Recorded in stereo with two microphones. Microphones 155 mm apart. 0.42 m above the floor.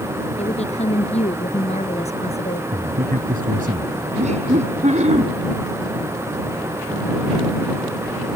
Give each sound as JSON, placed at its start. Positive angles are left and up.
{"t": 0.4, "sound": "a woman speaking", "side_deg": 45}
{"t": 2.7, "sound": "a man speaking", "side_deg": -70}
{"t": 4.2, "sound": "laughter", "side_deg": -50}